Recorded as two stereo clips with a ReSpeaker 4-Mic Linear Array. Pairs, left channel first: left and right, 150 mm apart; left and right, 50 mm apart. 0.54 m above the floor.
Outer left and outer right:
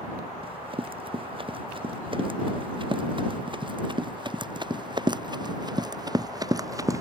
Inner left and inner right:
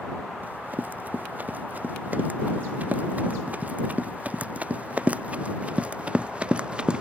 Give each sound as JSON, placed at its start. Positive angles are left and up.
{"t": 0.4, "sound": "running footsteps", "side_deg": -35}